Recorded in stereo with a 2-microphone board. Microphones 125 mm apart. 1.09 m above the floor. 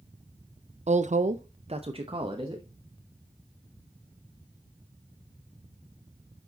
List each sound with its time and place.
0.9 s a woman speaking: 65° right (ahead or behind), 0.5 m; by 2.6 s 35° right (ahead or behind), 1.2 m